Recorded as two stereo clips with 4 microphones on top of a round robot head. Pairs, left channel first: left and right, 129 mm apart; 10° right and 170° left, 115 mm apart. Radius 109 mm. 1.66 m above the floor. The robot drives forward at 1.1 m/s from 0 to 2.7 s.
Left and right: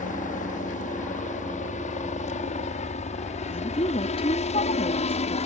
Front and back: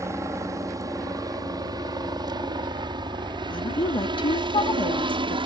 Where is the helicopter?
105° left; by 5.5 s 125° left.